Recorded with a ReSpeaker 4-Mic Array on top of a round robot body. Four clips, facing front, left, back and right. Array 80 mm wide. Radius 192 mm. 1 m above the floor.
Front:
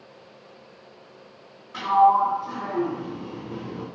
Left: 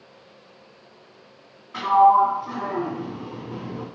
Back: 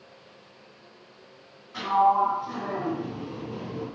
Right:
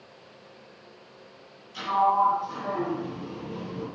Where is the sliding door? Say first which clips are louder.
Left 7 dB, front 4 dB; 75° left, 3.5 m.